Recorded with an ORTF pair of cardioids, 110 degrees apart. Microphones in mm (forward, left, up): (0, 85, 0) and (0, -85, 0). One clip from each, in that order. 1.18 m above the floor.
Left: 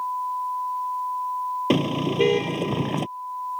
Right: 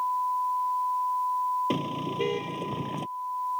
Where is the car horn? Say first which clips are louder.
Left 7 dB; 50° left.